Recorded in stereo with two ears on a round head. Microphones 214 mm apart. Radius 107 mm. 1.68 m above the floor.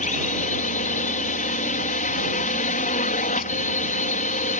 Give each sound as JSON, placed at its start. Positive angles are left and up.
{"t": 0.0, "sound": "a drone", "side_deg": 35}